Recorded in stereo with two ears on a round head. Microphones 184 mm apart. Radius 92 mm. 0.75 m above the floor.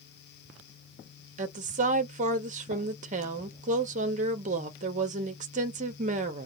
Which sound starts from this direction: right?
A woman speaking, at 1.4 s.